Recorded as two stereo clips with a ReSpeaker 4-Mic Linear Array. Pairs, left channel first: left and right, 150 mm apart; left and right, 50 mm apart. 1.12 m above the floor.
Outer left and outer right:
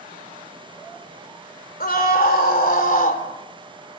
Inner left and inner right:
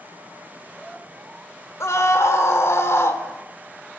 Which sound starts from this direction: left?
A scream, at 1.8 s.